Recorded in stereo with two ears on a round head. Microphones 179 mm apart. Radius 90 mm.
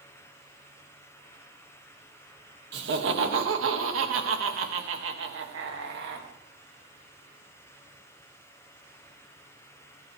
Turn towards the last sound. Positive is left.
turn(degrees=-55)  # may be behind; listen again after turning